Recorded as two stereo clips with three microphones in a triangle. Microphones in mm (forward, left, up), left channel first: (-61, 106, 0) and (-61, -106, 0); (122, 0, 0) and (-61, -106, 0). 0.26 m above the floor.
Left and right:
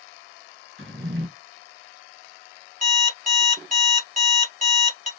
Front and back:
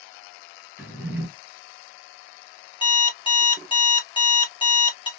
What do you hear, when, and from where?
0.8 s a drawer: 70° right, 1.8 m
2.8 s an alarm clock: 35° right, 2 m